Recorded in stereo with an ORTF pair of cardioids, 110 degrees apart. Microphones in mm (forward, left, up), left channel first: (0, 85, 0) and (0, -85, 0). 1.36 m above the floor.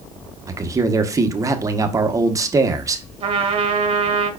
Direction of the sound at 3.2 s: 35° right.